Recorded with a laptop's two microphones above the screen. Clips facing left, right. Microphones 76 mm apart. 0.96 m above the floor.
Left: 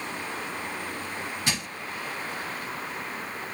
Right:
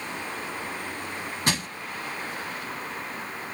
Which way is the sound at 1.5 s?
50° right (ahead or behind).